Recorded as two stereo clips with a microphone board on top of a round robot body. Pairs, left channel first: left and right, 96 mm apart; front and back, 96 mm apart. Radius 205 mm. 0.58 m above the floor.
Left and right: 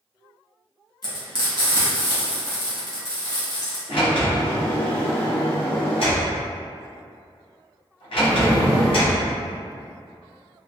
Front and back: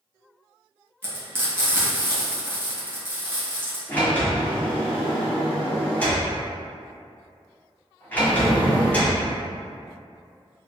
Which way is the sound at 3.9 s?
75° left.